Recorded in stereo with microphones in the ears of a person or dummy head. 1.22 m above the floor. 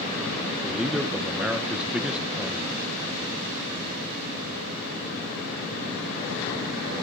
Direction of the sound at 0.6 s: 5° right (ahead or behind).